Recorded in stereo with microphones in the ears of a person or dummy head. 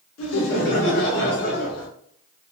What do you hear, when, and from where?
0.2 s laughter: 65° left (ahead or behind), 1.2 m; by 1.9 s 55° left (ahead or behind), 1.9 m